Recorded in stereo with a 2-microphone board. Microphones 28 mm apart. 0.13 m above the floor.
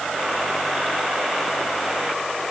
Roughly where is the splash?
I don't hear a splash.